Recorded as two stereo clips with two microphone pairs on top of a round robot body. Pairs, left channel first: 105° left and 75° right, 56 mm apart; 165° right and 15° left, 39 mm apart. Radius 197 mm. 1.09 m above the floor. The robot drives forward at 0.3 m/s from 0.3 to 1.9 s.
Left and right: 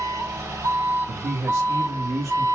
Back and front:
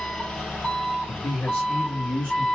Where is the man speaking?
105° right, 2 m; by 2.5 s 110° right, 2.5 m.